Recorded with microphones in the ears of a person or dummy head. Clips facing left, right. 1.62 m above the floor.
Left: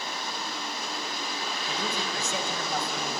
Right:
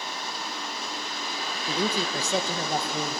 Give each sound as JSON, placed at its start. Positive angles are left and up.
{"t": 1.7, "sound": "a woman speaking", "side_deg": -25, "distance_m": 1.4}